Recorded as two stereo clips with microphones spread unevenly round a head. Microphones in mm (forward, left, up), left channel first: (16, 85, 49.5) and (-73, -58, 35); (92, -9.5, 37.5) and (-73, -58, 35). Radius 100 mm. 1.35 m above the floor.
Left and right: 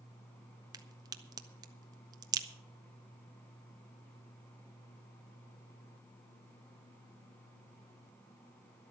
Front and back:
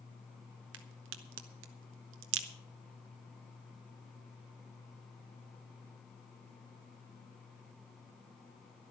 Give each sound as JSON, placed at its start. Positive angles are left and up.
{"t": 0.7, "sound": "a crack", "azimuth_deg": 170, "distance_m": 1.0}